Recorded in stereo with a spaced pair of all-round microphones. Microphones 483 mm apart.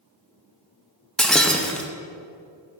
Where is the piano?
No piano in this recording.